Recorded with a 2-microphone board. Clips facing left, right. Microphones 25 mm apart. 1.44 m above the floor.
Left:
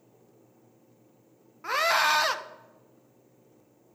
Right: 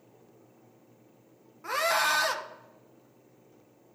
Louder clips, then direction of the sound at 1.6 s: Left 3 dB; 20° left (ahead or behind).